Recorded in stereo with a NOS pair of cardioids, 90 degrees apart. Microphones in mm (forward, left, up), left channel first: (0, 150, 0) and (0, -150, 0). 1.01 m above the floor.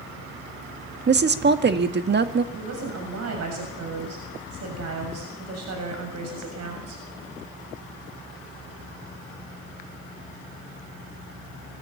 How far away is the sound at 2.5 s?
About 7 m.